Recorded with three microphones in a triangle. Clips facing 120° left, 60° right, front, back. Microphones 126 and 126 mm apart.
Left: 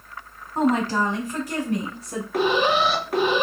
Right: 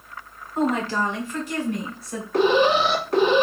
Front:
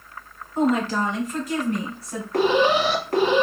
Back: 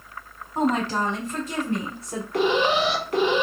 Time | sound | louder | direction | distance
0.6 | a woman speaking | left 2 dB, front 2 dB | 145° left | 2 m
2.3 | an alarm | right 3 dB, front 2 dB | 35° left | 1.4 m